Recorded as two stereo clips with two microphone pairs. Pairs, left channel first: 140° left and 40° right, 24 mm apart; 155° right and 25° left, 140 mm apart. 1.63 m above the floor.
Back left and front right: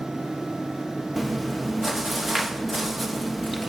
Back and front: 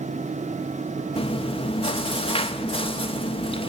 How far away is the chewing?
About 1.1 m.